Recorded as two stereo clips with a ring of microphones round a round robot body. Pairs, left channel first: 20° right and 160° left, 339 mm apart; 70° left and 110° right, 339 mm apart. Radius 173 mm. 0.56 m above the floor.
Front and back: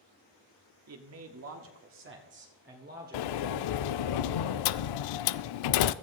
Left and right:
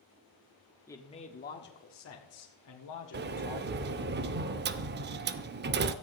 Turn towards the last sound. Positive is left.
turn(degrees=-50)